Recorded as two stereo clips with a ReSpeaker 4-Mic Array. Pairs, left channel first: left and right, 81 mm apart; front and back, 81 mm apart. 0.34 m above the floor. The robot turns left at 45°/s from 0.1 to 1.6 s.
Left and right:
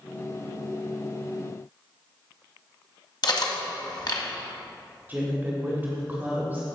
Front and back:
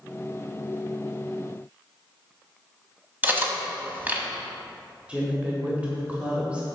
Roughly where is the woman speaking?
Behind right.